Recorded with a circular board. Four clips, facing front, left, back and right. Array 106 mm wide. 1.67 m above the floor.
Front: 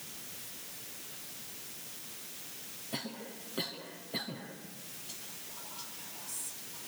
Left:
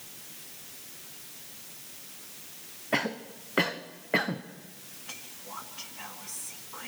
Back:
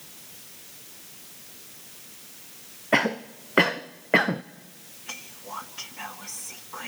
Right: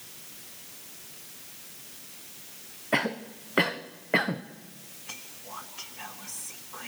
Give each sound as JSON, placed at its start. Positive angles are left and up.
{"t": 2.9, "sound": "a cough", "azimuth_deg": -170, "distance_m": 0.9}
{"t": 5.1, "sound": "whispering", "azimuth_deg": 175, "distance_m": 2.5}